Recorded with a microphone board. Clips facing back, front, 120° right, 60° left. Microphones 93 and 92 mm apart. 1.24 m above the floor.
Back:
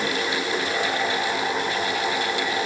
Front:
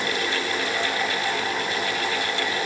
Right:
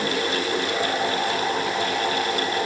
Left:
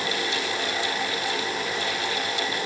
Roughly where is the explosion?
I don't hear an explosion.